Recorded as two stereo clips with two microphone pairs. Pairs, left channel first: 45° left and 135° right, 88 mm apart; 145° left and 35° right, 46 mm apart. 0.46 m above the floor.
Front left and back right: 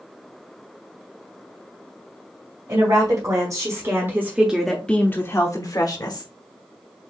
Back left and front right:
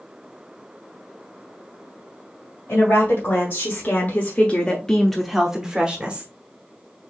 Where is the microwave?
No microwave in this recording.